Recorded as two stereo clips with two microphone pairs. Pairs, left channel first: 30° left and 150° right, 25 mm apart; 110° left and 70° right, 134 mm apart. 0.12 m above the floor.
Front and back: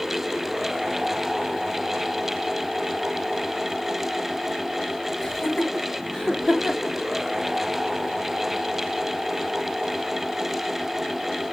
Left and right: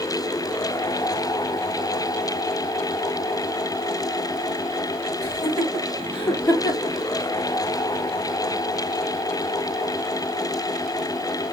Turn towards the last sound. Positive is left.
turn(degrees=180)